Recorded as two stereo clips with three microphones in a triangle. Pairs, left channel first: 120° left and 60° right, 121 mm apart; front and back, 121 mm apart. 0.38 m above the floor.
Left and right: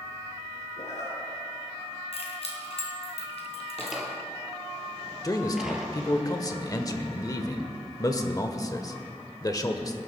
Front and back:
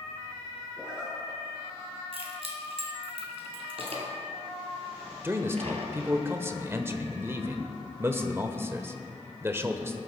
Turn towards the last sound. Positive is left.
turn(degrees=135)